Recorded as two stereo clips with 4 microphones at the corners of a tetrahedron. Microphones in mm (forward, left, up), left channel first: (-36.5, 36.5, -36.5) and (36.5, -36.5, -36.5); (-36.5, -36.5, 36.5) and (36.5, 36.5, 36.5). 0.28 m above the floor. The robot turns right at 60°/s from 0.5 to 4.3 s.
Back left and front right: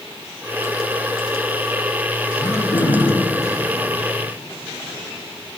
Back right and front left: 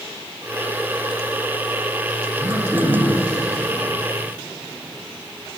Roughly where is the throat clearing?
Left.